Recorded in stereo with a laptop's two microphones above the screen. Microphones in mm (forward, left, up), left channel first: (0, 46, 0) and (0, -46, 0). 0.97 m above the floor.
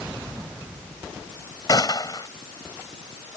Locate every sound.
1.7 s a gunshot: 45° left (ahead or behind)